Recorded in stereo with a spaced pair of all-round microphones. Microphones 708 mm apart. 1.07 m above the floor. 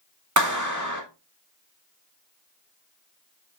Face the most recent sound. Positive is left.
turn(degrees=-25)  # may be behind; listen again after turning